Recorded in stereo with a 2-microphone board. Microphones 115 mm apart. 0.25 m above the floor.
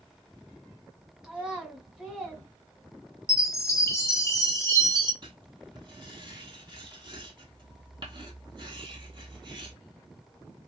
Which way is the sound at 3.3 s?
25° left (ahead or behind).